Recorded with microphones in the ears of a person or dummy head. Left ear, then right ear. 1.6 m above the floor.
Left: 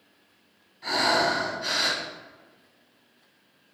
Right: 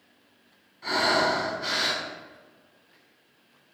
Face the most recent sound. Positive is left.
turn(degrees=5)  # may be behind; listen again after turning